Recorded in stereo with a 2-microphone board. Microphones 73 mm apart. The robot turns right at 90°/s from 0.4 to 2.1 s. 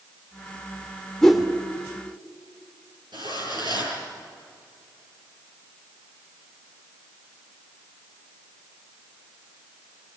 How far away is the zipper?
About 8 m.